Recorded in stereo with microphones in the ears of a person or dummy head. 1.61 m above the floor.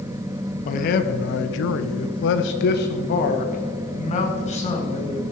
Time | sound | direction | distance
0.7 | a man speaking | 35° left (ahead or behind) | 1.0 m